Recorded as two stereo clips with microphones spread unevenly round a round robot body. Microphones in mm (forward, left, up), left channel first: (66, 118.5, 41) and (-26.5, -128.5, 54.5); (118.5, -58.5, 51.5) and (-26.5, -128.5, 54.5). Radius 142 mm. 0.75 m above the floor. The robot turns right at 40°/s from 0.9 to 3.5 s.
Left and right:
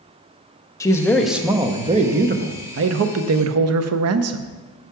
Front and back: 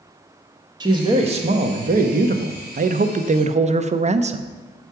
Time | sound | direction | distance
0.8 | a man speaking | 145° left | 0.6 m